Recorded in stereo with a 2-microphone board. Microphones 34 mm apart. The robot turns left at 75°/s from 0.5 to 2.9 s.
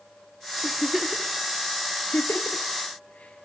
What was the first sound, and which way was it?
A giggle, 35° right (ahead or behind).